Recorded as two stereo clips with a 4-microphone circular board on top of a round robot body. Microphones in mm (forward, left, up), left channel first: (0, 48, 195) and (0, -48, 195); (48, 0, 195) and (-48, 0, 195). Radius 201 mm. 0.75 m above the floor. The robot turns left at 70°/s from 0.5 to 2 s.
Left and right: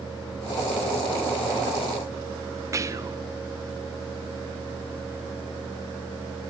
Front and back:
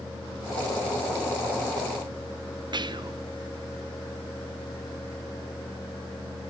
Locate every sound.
2.7 s whispering: 145° right, 0.8 m